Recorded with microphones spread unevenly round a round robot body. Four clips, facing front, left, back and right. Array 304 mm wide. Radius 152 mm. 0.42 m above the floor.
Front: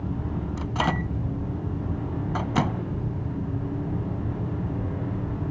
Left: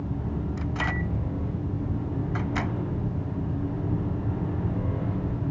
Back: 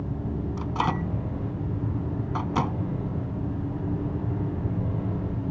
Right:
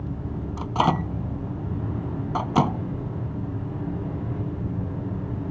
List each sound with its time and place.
0.6 s a microwave: 75° right